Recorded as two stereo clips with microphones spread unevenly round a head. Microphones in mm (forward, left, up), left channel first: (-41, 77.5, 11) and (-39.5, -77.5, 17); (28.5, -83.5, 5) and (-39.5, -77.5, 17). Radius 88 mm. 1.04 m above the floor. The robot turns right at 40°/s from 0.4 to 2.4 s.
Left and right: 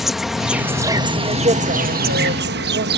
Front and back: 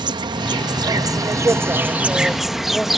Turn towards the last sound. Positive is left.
turn(degrees=-100)